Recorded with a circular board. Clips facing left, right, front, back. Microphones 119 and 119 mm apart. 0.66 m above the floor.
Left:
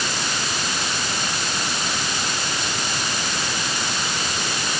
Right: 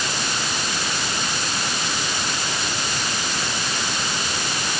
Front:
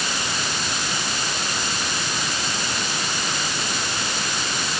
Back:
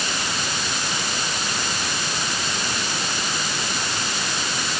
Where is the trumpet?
No trumpet in this recording.